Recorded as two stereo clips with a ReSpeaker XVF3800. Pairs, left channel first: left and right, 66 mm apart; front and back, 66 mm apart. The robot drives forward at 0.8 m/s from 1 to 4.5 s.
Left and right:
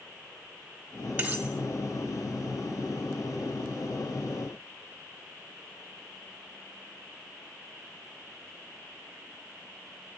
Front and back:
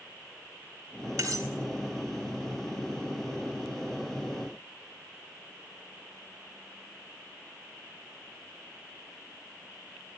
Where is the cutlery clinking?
160° right, 1.9 m.